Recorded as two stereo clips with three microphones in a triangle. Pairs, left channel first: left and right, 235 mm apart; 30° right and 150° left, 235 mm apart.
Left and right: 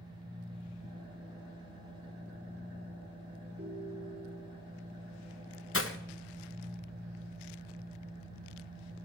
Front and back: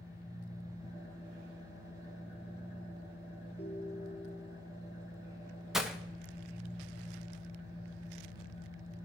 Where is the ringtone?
65° right, 1.8 m.